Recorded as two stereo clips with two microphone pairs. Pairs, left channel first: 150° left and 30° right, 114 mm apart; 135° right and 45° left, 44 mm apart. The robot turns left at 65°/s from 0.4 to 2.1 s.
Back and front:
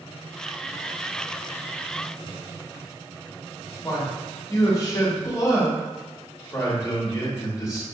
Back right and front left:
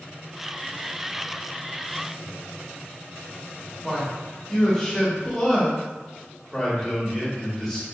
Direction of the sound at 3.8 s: 160° left.